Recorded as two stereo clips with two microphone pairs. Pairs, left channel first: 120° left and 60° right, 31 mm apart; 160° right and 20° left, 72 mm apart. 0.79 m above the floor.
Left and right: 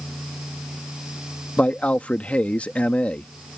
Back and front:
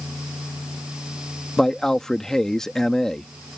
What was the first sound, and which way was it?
A man speaking, 120° left.